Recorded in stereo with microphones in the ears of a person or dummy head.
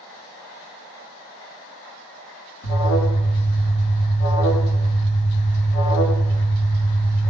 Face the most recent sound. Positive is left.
turn(degrees=80)